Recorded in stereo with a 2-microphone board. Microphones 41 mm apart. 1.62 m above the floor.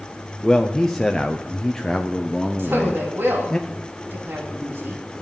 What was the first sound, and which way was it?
A man speaking, 10° left (ahead or behind).